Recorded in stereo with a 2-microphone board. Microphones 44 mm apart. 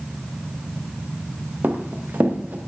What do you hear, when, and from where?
1.6 s running footsteps: 45° right (ahead or behind), 3 m